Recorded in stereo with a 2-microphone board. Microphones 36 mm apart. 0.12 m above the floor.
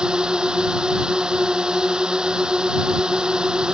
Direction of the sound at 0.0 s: 25° right (ahead or behind).